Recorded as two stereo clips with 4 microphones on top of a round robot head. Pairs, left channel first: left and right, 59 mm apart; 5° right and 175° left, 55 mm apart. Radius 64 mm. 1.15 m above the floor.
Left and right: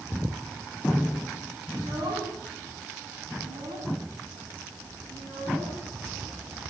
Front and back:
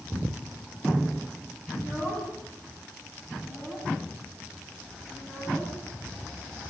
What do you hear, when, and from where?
1.7 s a child speaking: 70° right, 6 m